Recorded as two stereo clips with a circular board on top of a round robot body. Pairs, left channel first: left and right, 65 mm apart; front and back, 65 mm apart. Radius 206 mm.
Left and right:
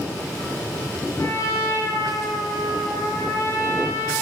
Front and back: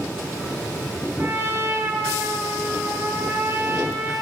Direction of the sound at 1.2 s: 130° left.